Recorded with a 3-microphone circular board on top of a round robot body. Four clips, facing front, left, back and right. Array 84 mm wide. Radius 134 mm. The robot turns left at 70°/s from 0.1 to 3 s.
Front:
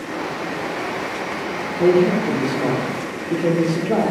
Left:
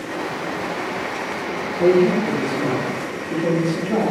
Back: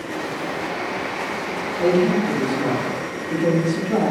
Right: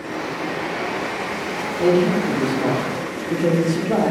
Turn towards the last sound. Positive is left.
turn(degrees=-40)